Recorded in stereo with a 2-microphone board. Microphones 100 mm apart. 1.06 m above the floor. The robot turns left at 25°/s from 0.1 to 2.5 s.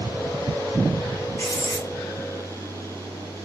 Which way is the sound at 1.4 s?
35° left (ahead or behind).